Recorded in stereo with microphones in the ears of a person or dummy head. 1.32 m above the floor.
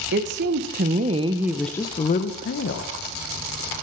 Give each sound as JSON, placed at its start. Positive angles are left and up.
{"t": 0.1, "sound": "a woman speaking", "side_deg": -55, "distance_m": 1.1}